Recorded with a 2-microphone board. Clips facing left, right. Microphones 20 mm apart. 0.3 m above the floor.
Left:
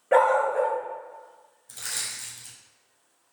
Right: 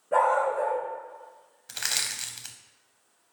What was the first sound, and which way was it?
A dog barking, 70° left (ahead or behind).